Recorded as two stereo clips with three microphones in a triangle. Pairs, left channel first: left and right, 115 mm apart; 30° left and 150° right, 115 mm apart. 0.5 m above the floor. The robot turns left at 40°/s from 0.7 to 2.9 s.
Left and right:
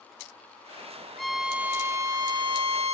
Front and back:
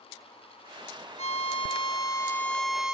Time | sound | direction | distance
1.2 | a violin | 5° left | 0.6 m